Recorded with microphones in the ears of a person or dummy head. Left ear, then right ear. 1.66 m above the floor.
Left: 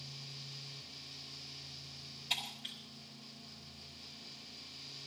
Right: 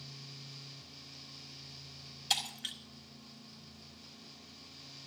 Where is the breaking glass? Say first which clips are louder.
Right 4 dB; 60° right (ahead or behind), 4 m.